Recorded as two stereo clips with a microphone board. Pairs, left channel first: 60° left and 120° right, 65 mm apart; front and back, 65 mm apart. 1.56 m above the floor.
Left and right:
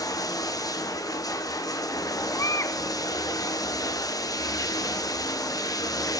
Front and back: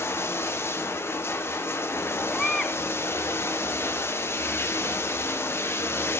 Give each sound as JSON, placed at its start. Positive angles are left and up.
{"t": 0.0, "sound": "running water", "azimuth_deg": 45, "distance_m": 0.8}
{"t": 2.3, "sound": "a baby crying", "azimuth_deg": 80, "distance_m": 0.5}